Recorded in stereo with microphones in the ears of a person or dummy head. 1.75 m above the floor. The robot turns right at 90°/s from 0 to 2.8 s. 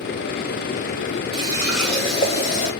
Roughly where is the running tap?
Ahead right.